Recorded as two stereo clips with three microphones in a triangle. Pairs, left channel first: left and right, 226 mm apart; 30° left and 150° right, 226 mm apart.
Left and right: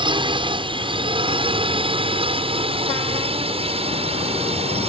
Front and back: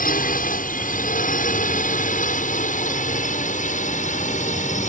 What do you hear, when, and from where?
0.0 s a drone: 20° right; by 4.9 s 25° right